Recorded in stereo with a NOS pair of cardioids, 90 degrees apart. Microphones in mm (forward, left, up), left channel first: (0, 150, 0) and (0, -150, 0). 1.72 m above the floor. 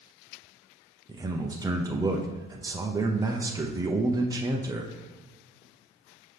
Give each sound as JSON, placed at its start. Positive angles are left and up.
{"t": 1.1, "sound": "a man speaking", "azimuth_deg": -15, "distance_m": 0.7}